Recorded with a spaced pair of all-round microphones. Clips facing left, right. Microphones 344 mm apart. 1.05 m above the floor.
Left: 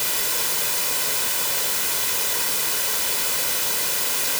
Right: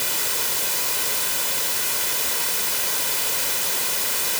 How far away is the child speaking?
I don't hear a child speaking.